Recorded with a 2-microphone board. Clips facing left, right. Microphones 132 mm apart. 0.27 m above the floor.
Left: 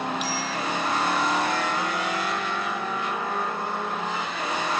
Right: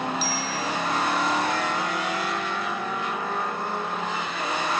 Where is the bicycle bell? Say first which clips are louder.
Even; 35° right (ahead or behind), 6.5 m.